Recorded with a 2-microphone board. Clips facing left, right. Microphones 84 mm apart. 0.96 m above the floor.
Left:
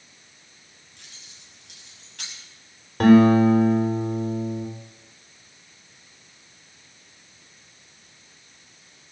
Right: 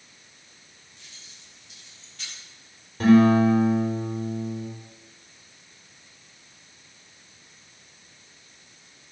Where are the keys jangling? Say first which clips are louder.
Left 1 dB; 80° left, 5.5 m.